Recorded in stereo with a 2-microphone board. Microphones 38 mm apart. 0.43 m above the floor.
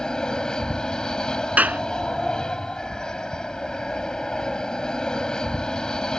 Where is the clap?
45° right (ahead or behind).